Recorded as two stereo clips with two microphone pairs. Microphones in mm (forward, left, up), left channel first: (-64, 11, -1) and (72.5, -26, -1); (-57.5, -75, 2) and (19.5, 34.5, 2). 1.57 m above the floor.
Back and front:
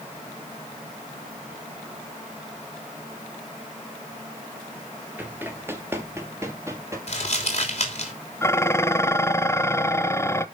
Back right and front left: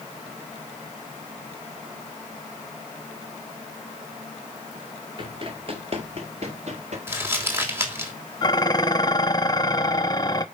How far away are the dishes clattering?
About 0.6 m.